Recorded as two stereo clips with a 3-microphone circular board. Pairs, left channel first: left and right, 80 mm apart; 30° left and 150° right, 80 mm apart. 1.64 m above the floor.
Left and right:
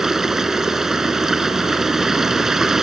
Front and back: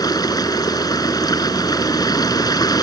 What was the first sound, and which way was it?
Running water, 5° right.